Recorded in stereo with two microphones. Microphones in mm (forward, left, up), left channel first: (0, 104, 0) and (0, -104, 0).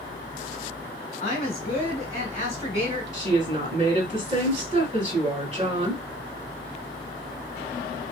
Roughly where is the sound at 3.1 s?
Right.